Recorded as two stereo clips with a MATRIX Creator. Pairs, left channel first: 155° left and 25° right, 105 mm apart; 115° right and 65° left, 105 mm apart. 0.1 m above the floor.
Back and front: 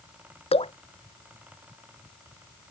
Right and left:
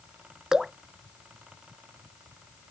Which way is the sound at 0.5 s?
150° left.